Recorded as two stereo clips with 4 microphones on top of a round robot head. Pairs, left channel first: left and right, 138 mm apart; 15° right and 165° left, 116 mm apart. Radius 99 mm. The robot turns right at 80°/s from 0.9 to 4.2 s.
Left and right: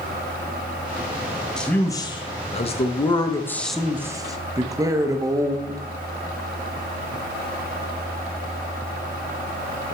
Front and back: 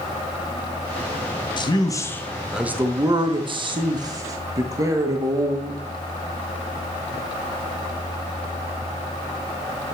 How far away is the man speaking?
About 1.1 m.